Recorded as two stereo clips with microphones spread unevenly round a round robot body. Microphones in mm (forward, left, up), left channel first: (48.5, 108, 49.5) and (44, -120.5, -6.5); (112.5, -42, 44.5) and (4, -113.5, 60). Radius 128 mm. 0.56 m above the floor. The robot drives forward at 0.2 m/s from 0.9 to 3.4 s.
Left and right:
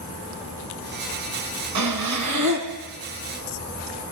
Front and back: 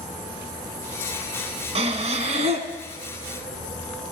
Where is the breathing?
110° right, 1.5 m; by 2.7 s 115° right, 1.6 m.